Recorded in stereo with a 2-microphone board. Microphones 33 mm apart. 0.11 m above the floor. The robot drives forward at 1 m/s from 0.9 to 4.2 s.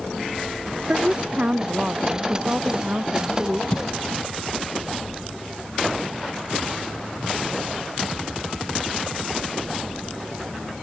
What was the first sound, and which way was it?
A woman speaking, 40° right (ahead or behind).